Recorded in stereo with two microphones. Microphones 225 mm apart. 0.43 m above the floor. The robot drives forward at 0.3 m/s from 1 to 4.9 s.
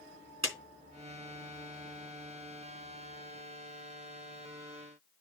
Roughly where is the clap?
Right.